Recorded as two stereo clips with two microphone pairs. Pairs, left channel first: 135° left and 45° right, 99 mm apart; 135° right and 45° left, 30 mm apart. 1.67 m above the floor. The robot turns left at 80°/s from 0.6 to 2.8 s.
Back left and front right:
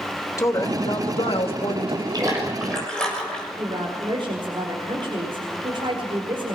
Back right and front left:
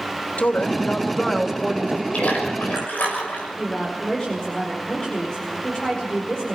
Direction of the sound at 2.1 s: 90° right.